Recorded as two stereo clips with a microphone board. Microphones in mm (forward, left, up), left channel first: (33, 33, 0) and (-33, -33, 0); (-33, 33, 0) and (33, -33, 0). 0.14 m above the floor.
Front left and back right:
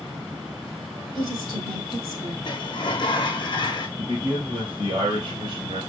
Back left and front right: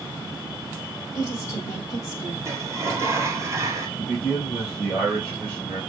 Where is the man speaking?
160° right, 2.5 m.